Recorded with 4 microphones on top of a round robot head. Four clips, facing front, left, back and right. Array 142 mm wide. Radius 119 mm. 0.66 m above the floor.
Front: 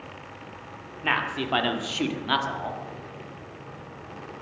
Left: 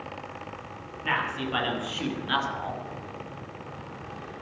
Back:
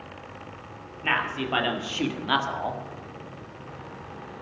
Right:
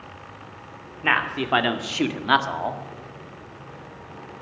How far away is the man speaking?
About 2.5 m.